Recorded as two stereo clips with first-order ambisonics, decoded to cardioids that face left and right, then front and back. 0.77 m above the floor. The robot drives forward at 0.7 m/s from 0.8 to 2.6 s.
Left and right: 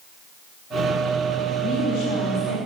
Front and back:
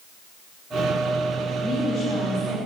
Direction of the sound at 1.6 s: 105° left.